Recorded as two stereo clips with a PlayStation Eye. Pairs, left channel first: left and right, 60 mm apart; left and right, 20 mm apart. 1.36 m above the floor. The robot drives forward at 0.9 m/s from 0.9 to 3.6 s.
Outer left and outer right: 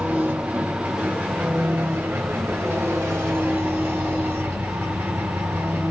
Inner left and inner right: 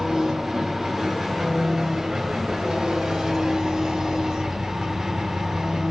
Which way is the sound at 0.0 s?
30° right (ahead or behind).